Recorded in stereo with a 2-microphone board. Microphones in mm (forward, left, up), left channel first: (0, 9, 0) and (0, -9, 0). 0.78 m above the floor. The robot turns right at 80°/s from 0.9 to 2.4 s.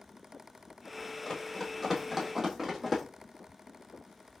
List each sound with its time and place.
1.2 s running footsteps: 40° left (ahead or behind), 1.9 m; by 3.0 s 10° right (ahead or behind), 2 m